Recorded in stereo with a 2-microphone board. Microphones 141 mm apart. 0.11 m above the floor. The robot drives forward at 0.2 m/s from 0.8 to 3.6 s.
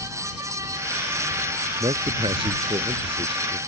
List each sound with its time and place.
1.8 s a man speaking: 40° right (ahead or behind); by 3.6 s 35° right (ahead or behind)